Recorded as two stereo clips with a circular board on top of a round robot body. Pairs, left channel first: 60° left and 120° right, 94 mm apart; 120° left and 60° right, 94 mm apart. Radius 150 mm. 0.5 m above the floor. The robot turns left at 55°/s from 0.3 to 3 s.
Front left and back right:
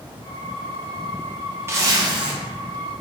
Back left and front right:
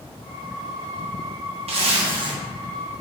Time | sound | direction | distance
1.7 | a zipper | 55° right | 0.7 m